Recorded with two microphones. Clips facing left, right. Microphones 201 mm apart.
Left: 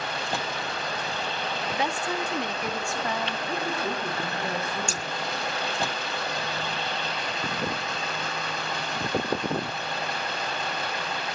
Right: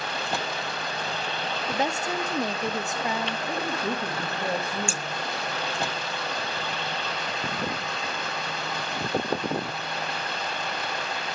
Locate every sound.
1.7 s a woman speaking: 45° right (ahead or behind), 1.5 m; by 3.4 s 5° right (ahead or behind), 1.5 m
3.5 s a woman speaking: 65° right (ahead or behind), 3 m
4.9 s scissors: 40° left (ahead or behind), 0.6 m